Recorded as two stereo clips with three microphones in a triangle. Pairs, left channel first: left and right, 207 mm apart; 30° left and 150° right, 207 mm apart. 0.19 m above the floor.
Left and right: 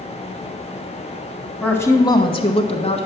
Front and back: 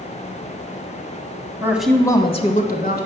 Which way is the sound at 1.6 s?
160° left.